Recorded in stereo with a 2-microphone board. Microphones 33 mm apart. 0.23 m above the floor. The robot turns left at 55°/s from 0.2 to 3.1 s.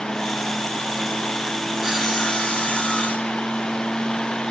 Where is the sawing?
170° right, 2.5 m; by 3.8 s 120° left, 2.5 m.